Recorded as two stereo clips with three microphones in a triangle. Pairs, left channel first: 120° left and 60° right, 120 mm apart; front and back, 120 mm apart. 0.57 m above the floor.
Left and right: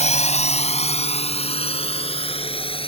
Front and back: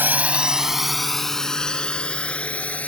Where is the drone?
105° left; by 2.9 s 80° left.